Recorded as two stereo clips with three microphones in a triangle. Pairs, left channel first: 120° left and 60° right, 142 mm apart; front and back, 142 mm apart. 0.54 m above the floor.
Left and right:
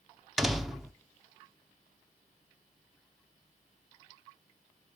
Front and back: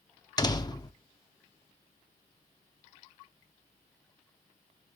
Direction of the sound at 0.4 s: 30° left.